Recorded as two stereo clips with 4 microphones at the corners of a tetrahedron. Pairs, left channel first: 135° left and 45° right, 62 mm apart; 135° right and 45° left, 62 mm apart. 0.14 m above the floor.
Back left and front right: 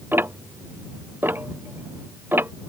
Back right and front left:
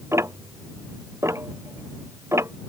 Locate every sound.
0.1 s ticking: 5° left